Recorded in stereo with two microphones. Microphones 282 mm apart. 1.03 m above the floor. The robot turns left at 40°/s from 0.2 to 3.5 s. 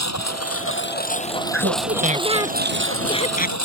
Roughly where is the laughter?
Behind right.